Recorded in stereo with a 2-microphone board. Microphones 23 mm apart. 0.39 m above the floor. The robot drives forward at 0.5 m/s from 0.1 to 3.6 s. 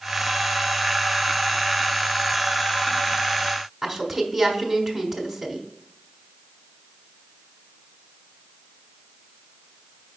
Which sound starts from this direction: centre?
A woman speaking, at 3.8 s.